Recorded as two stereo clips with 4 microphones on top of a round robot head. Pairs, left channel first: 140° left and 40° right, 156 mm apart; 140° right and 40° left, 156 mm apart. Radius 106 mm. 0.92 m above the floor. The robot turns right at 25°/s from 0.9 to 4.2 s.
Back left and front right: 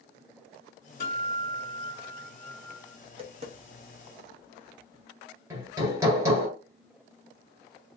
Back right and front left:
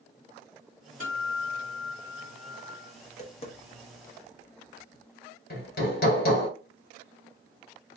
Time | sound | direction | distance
1.0 | a guitar | 175° right | 3 m
3.0 | tapping | 100° right | 1.1 m
5.5 | hammering | 110° right | 1.7 m